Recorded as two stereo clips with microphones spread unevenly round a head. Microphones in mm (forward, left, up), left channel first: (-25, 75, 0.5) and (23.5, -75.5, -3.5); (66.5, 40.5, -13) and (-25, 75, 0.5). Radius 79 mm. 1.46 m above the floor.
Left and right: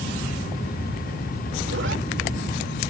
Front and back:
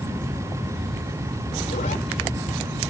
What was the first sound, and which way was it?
A zipper, 55° right.